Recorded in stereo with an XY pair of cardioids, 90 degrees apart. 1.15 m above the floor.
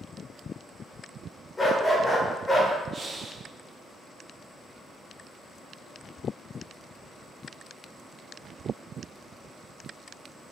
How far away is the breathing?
About 0.8 m.